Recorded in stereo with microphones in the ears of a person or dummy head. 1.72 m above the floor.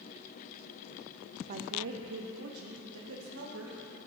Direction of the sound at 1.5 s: 40° right (ahead or behind).